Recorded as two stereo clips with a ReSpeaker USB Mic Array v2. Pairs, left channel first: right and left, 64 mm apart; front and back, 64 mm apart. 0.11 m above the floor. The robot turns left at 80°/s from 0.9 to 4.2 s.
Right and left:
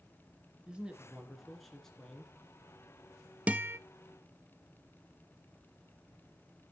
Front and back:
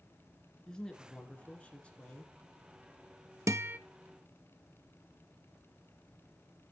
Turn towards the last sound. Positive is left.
turn(degrees=95)